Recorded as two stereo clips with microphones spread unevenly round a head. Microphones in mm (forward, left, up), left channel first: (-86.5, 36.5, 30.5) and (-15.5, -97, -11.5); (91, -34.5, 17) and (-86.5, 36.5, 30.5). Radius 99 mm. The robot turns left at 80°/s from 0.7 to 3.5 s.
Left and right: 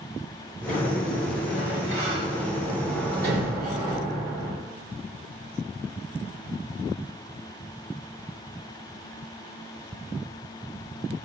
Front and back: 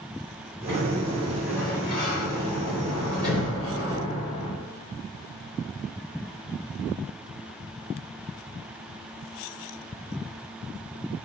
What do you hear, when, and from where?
0.7 s a sliding door: 140° left, 4 m; by 4.5 s 85° right, 4 m